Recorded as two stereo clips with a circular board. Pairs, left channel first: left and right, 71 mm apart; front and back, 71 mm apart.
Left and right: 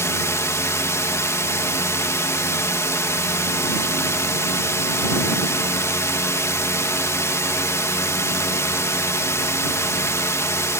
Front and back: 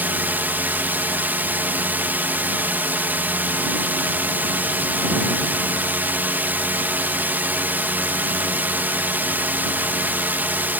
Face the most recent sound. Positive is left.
turn(degrees=125)